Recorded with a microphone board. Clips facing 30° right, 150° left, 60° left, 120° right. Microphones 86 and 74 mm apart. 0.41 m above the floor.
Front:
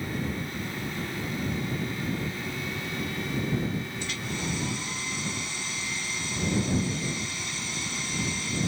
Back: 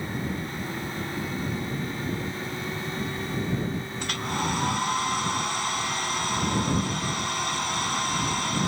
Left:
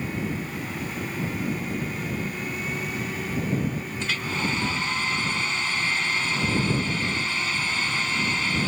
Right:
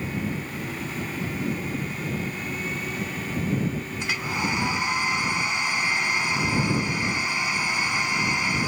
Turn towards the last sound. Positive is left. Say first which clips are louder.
# back 5 dB, even
turn(degrees=165)